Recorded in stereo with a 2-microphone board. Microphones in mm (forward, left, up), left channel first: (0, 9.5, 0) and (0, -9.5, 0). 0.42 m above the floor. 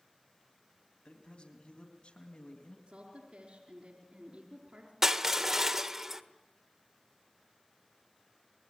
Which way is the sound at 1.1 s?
65° left (ahead or behind).